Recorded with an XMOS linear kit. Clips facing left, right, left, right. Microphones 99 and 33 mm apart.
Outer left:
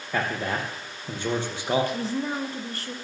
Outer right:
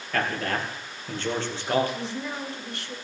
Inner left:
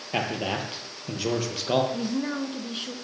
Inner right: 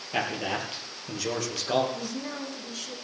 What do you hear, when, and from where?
0.1 s a man speaking: 15° left (ahead or behind), 4 m
1.9 s a woman speaking: 45° left (ahead or behind), 2.5 m